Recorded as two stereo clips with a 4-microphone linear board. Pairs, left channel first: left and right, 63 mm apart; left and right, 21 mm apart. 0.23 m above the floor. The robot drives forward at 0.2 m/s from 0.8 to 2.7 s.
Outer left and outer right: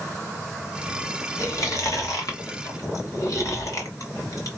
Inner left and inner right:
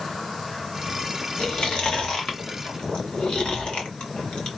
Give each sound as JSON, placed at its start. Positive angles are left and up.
{"t": 1.4, "sound": "chewing", "side_deg": 60, "distance_m": 1.6}